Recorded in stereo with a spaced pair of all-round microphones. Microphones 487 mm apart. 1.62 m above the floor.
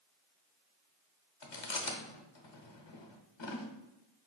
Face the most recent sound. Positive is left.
turn(degrees=60)  # may be behind; listen again after turning